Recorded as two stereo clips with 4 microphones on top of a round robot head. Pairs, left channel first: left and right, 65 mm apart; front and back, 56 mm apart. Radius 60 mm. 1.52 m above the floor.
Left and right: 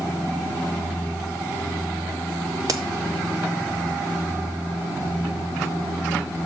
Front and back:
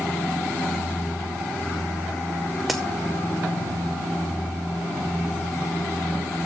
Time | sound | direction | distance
2.7 | a crack | 90° right | 0.5 m